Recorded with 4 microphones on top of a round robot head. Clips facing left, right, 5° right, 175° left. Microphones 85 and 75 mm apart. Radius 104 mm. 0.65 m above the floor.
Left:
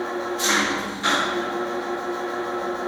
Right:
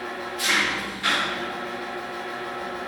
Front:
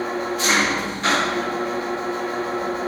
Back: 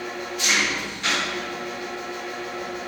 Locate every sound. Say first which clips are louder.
0.0 s an engine running: left 5 dB, front 6 dB; 35° left, 1.2 m